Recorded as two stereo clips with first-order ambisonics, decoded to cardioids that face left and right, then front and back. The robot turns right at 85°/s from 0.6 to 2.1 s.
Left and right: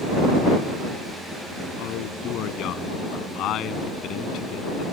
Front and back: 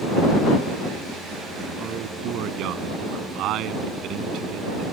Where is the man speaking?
110° left; by 4.8 s 135° left.